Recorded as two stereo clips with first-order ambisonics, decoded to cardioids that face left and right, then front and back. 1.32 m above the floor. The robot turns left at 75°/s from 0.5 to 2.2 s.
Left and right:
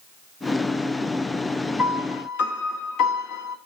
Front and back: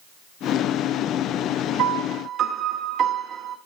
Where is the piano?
155° left, 1.3 m; by 3.6 s 125° left, 1.3 m.